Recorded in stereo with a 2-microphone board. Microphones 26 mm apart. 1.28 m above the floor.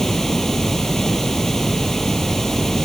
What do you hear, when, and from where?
0.0 s running water: 20° left (ahead or behind)